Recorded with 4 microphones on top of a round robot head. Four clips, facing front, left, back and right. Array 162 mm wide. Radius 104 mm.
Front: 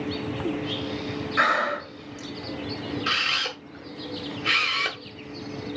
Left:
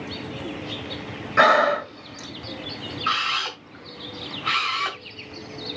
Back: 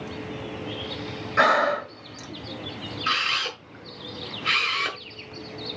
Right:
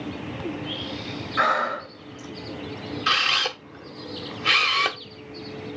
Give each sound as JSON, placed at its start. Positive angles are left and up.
{"t": 1.4, "sound": "breathing", "azimuth_deg": 105, "distance_m": 1.7}
{"t": 3.1, "sound": "a camera shutter", "azimuth_deg": -90, "distance_m": 1.5}